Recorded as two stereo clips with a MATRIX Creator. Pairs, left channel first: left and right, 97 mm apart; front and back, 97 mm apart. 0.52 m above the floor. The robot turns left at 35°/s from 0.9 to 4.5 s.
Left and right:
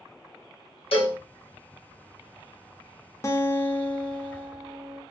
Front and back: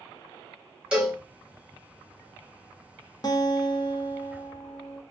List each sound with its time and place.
0.9 s a cowbell: 100° left, 1.2 m; by 1.2 s 90° left, 1.2 m
3.2 s a guitar: 40° left, 0.6 m; by 5.0 s 5° right, 0.6 m